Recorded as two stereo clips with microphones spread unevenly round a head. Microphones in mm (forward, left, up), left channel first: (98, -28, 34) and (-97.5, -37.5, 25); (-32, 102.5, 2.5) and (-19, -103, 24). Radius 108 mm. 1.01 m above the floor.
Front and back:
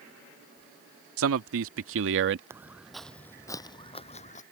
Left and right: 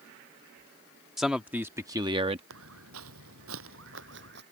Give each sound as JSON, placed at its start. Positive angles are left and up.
{"t": 1.2, "sound": "a man speaking", "azimuth_deg": -175}
{"t": 2.5, "sound": "footsteps", "azimuth_deg": -100}